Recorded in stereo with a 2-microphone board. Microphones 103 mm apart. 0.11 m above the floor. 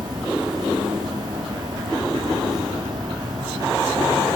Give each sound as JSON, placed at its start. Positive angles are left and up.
{"t": 0.0, "sound": "an insect", "side_deg": -40, "distance_m": 2.0}